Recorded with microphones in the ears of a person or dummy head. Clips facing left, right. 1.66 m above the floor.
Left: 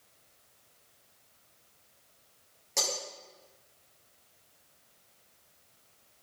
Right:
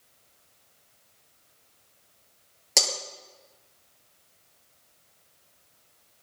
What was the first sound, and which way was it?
Breaking glass, 80° right.